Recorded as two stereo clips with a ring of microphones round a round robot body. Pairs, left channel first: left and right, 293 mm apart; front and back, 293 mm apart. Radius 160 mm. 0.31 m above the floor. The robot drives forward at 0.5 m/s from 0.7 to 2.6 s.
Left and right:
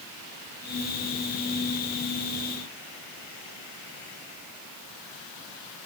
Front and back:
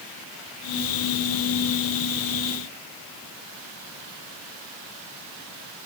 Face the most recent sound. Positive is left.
No sound to turn to.